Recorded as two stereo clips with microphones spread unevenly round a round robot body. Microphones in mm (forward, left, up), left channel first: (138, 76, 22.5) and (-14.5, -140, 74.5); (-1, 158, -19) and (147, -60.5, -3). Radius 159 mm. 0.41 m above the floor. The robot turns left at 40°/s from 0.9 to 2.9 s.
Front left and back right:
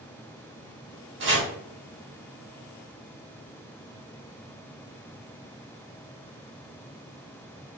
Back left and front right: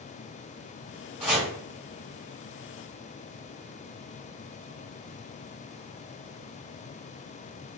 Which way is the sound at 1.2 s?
110° right.